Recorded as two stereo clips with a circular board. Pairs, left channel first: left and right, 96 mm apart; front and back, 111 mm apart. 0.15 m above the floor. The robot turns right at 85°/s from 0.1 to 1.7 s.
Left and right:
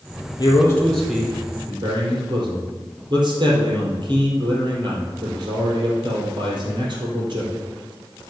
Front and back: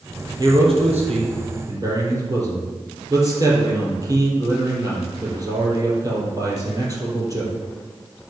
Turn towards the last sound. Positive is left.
turn(degrees=-125)